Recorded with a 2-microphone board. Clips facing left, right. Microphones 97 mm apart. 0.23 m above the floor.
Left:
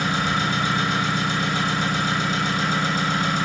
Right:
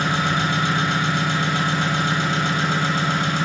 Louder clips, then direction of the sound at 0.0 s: Right 2 dB; 60° right (ahead or behind).